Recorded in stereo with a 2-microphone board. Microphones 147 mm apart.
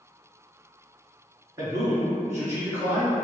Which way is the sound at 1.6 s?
25° right (ahead or behind).